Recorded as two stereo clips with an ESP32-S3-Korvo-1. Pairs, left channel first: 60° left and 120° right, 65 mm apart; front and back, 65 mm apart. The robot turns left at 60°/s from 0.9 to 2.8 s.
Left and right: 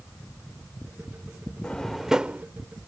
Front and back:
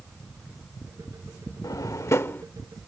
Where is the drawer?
10° right; by 2.5 s 60° right.